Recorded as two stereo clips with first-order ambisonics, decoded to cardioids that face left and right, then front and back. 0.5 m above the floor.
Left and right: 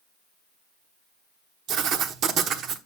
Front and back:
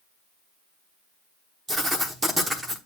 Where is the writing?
105° right, 1.0 m.